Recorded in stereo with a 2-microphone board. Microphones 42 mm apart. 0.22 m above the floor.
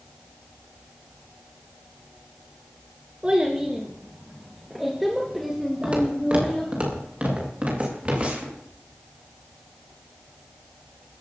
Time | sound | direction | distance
3.2 | a child speaking | 25° right (ahead or behind) | 2.5 m
5.8 | footsteps | 30° right (ahead or behind) | 7.5 m